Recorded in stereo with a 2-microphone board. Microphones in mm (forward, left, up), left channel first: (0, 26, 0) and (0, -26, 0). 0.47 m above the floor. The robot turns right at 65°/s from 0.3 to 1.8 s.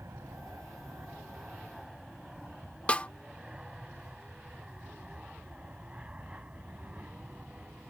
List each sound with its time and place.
0.0 s an aircraft: 60° right (ahead or behind); by 7.9 s 30° right (ahead or behind)
2.9 s a snare drum: 25° left (ahead or behind)